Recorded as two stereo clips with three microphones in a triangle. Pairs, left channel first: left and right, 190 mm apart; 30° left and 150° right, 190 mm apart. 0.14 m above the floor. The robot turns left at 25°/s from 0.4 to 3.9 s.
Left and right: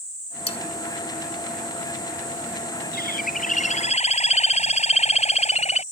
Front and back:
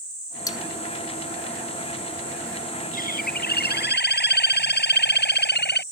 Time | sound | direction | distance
0.5 | cutlery clinking | 80° left | ?
2.9 | a bird | 65° left | ?